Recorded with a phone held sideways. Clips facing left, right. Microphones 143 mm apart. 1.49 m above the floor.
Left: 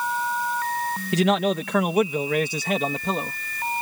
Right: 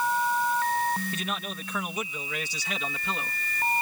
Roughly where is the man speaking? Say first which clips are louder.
Left 14 dB; left.